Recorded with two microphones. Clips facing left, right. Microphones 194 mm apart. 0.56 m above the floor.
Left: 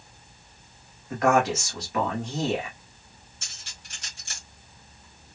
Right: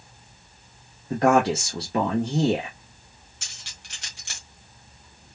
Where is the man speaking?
35° right (ahead or behind), 1.5 m.